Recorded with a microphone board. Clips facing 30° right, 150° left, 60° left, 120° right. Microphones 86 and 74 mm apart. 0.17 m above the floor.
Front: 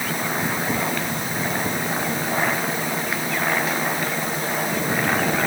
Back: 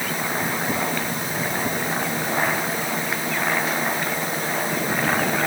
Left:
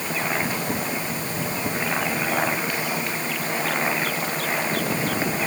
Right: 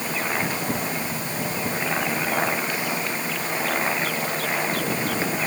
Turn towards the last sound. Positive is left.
No sound to turn to.